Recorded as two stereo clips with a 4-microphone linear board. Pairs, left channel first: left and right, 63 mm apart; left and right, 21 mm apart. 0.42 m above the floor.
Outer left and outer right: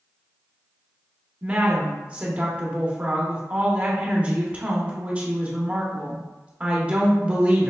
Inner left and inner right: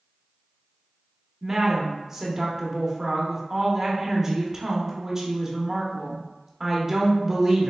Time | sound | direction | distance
1.4 | a woman speaking | 25° right (ahead or behind) | 0.8 m